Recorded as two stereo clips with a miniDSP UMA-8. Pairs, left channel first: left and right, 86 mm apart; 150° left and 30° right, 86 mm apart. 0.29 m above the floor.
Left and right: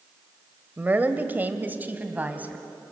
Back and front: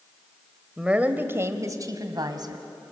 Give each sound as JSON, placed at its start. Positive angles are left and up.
{"t": 0.8, "sound": "a woman speaking", "azimuth_deg": -95, "distance_m": 1.4}